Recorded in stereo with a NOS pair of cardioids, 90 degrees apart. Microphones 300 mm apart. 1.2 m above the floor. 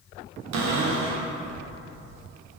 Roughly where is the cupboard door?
Ahead right.